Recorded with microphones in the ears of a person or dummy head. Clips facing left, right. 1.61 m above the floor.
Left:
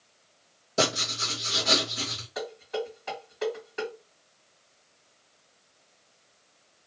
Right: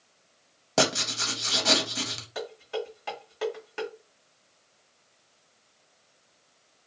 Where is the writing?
80° right, 1.0 m.